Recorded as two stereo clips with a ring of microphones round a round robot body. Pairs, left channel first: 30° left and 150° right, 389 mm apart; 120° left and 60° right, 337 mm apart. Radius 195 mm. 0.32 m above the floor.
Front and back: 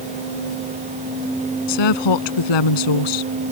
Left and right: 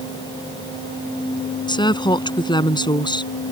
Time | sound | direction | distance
1.7 | a woman speaking | 45° left | ?